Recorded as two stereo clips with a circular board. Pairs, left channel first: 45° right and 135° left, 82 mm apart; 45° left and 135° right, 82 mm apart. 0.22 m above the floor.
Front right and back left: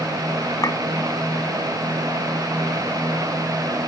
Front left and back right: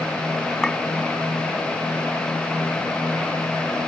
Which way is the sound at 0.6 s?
35° right.